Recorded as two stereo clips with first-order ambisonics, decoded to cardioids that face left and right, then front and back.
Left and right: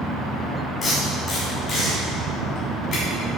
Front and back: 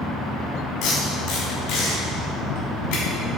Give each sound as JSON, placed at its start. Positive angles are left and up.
{"t": 0.8, "sound": "tape being pulled", "azimuth_deg": 20, "distance_m": 3.5}